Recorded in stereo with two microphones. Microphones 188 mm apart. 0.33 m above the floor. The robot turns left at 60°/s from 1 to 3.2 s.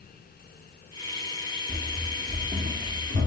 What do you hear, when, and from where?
1.7 s running footsteps: 15° right (ahead or behind), 1.6 m; by 3.3 s 80° right, 3 m